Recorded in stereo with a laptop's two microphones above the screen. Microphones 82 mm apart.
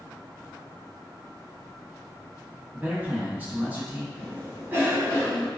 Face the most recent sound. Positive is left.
turn(degrees=-25)  # may be behind; listen again after turning